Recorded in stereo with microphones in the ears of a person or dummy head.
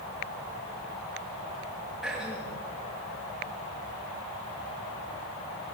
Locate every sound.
2.0 s throat clearing: centre (ahead or behind), 3 m